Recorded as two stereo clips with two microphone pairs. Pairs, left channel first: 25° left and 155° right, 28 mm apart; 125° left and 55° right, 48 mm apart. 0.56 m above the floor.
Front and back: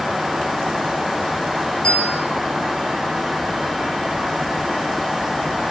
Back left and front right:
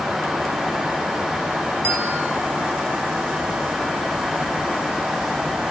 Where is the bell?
25° right, 9 m.